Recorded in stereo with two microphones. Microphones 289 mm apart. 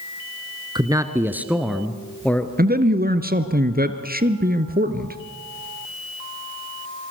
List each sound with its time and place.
0.8 s a man speaking: 15° right (ahead or behind), 1.4 m; by 2.5 s 5° left (ahead or behind), 2.0 m
2.6 s a man speaking: 30° right (ahead or behind), 1.7 m